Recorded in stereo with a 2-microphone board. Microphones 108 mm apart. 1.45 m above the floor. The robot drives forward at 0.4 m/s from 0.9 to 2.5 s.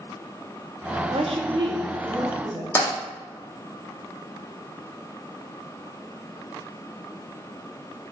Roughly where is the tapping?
Left.